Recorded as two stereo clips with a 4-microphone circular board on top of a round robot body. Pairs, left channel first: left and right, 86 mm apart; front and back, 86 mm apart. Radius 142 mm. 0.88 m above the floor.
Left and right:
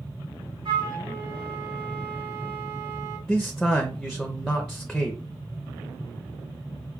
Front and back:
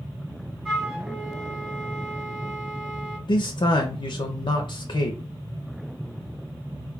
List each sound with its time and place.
0.7 s a flute: 100° right, 1.4 m
3.3 s a man speaking: straight ahead, 0.7 m